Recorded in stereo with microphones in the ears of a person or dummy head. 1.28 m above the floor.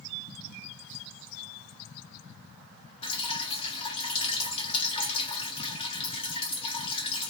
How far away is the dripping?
About 1.5 m.